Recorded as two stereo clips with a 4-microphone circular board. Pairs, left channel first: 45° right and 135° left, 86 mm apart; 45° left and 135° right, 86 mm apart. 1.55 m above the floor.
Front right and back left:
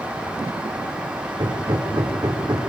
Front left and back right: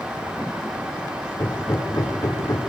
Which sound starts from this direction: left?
Hammering, at 1.4 s.